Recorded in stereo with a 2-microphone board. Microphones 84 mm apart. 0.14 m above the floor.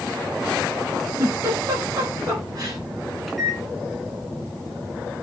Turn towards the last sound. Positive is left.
turn(degrees=0)  # may be behind; listen again after turning